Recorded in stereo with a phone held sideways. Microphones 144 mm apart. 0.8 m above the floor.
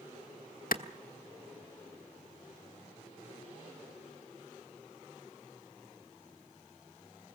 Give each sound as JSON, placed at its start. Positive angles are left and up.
{"t": 0.7, "sound": "a clap", "side_deg": 80, "distance_m": 1.2}